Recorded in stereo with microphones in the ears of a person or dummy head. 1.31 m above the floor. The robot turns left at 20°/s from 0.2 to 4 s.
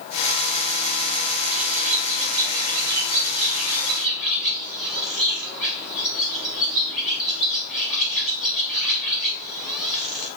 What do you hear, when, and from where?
1.5 s a bird: 130° right, 0.9 m; by 10.3 s straight behind, 0.9 m